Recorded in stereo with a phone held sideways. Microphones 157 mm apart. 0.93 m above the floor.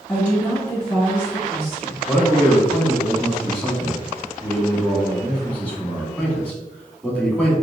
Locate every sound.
0.1 s a woman speaking: 10° left (ahead or behind), 2.0 m
2.1 s a man speaking: 10° left (ahead or behind), 1.7 m